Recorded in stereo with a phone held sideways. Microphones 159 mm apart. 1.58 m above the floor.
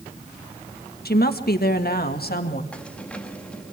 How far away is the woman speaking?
About 1.7 m.